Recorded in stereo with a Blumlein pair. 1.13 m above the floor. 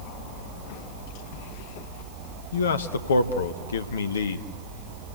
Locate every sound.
2.5 s a man speaking: 65° left, 1.1 m